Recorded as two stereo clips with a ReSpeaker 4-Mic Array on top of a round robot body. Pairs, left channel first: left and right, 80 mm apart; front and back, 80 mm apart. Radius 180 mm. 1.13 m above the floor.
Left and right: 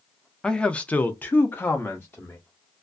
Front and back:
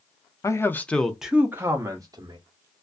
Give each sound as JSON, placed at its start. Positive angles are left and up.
{"t": 0.4, "sound": "a man speaking", "azimuth_deg": 15, "distance_m": 0.8}